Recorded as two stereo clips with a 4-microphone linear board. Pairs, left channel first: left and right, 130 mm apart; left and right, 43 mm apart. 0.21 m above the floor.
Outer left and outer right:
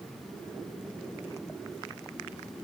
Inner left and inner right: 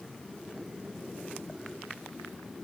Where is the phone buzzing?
I don't hear a phone buzzing.